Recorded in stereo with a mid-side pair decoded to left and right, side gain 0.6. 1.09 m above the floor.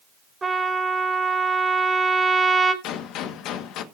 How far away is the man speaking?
No man speaking in this recording.